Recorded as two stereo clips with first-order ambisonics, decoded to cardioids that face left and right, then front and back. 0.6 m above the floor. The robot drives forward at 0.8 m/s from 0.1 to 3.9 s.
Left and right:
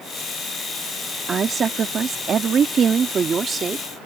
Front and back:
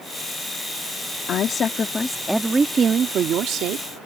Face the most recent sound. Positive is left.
turn(degrees=-160)